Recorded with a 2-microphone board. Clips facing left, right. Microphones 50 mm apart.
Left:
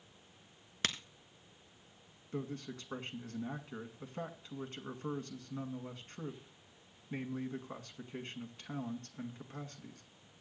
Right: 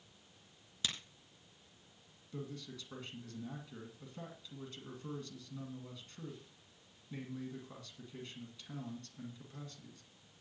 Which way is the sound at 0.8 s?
65° left (ahead or behind).